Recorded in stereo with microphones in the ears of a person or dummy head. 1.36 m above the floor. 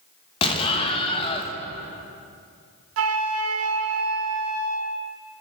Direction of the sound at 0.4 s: 30° left (ahead or behind).